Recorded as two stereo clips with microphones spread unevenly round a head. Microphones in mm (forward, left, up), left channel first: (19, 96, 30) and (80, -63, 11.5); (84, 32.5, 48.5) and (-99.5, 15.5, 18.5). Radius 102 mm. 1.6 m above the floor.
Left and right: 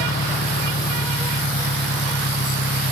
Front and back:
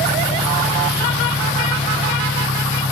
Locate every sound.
0.0 s an engine running: 80° left